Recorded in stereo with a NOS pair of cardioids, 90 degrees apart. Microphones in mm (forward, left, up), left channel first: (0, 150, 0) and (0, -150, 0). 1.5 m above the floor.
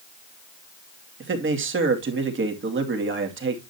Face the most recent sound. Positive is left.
turn(degrees=-40)